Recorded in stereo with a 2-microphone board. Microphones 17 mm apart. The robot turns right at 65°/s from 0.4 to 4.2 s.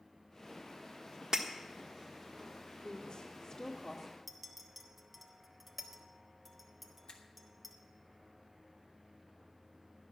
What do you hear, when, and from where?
1.3 s breaking glass: 40° right (ahead or behind), 1.4 m; by 1.5 s 30° right (ahead or behind), 1.4 m
2.8 s a woman speaking: 100° left, 1.8 m; by 4.1 s 175° right, 1.8 m
4.3 s a clink: 10° right (ahead or behind), 1.3 m
7.1 s a finger snap: 60° left (ahead or behind), 1.6 m